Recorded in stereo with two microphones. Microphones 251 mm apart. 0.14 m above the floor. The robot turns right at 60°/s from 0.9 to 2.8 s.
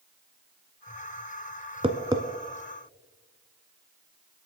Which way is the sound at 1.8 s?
20° right (ahead or behind).